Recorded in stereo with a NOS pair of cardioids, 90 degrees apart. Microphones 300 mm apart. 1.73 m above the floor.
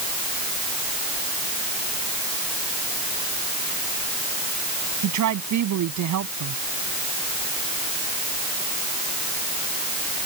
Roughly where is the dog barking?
No dog barking in this recording.